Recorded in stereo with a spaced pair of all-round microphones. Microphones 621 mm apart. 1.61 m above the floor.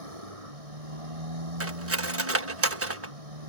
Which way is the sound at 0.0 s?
70° right (ahead or behind).